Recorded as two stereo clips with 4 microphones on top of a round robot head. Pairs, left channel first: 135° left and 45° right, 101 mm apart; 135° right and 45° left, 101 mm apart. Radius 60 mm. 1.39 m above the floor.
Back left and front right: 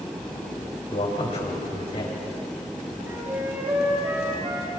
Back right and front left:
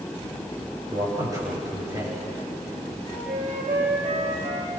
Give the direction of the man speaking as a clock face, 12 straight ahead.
9 o'clock.